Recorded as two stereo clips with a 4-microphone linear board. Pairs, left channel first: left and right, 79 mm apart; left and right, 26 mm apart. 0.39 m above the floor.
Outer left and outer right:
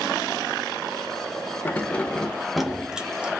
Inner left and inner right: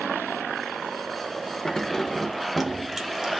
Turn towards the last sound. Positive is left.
turn(degrees=-15)  # may be behind; listen again after turning